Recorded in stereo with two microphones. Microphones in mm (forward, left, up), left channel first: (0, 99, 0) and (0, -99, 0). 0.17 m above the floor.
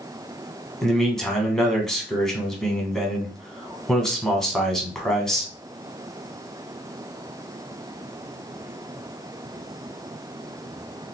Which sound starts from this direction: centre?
A man speaking, at 0.8 s.